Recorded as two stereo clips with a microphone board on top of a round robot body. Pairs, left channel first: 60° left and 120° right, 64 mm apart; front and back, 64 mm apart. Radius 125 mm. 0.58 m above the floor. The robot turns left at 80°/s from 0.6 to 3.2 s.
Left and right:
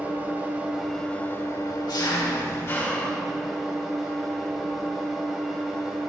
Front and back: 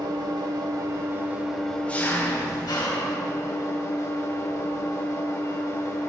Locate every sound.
0.0 s an engine running: 175° left, 3.5 m; by 6.1 s 35° right, 3.5 m